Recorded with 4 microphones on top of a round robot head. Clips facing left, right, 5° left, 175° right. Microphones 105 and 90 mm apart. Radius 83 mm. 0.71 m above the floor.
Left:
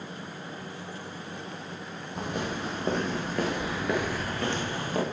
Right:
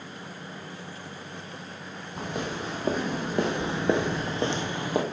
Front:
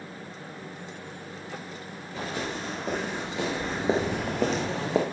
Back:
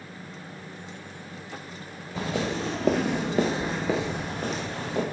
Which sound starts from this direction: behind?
Footsteps, at 2.2 s.